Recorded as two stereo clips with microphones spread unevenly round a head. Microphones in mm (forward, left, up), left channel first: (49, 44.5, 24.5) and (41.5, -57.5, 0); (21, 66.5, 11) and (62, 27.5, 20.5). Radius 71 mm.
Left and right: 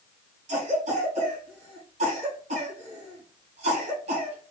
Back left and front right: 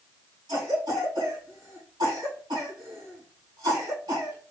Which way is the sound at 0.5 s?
85° right.